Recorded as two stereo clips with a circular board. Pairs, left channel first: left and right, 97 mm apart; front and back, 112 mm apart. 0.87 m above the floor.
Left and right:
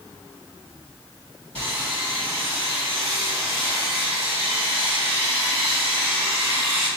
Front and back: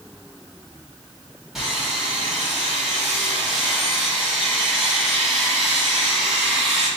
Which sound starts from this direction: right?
Sawing, at 1.6 s.